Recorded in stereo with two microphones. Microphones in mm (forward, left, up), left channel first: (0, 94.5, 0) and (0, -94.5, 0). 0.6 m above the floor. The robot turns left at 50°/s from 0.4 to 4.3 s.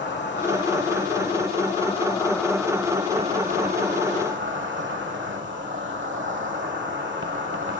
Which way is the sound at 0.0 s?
110° left.